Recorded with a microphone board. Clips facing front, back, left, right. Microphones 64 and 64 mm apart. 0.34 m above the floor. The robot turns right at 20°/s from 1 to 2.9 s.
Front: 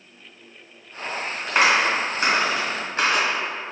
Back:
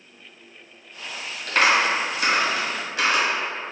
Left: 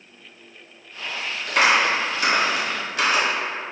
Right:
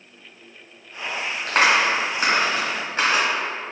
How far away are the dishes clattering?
No dishes clattering in this recording.